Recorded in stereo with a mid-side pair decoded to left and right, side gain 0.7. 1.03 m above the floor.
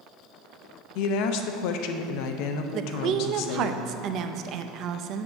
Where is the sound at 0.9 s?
70° left, 0.6 m.